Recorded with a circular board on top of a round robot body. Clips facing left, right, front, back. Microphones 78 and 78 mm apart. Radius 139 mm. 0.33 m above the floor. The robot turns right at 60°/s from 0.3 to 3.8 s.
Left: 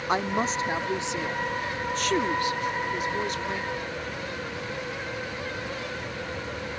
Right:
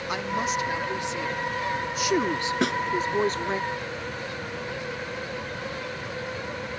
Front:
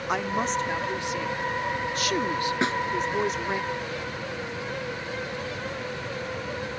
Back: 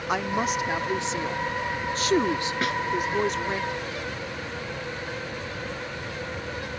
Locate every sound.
0.1 s a woman speaking: 95° left; by 3.6 s 70° right
2.6 s a snare drum: 65° right; by 2.8 s 55° right